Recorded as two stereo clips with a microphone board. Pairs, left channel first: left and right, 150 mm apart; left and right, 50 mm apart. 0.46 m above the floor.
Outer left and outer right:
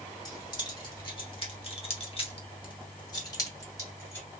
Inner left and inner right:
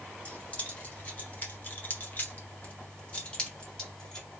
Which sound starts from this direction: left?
Keys jangling, at 0.2 s.